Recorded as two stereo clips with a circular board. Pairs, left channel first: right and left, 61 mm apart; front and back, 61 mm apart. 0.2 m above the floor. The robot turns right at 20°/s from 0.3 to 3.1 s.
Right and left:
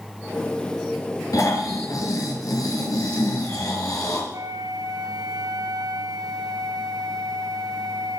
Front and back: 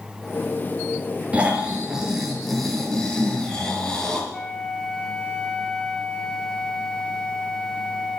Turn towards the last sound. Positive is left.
turn(degrees=75)